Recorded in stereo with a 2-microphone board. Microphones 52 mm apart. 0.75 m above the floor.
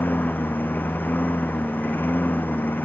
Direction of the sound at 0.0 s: 35° left (ahead or behind).